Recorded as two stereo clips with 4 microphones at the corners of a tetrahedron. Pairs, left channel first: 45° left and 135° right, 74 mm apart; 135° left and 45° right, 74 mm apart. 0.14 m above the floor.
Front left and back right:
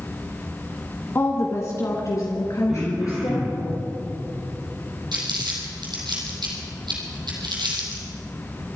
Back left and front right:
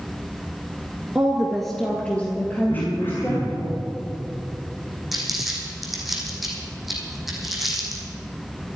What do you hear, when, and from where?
1.1 s a woman speaking: 25° left, 1.4 m; by 3.7 s 80° left, 3.5 m
2.7 s throat clearing: 150° left, 4 m
5.1 s crumpling: 130° right, 4 m